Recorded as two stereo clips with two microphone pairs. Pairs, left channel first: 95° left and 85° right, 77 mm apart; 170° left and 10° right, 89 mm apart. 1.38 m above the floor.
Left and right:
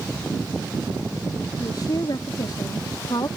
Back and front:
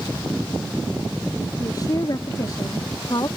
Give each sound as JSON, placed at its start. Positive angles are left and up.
{"t": 1.6, "sound": "a woman speaking", "azimuth_deg": 125}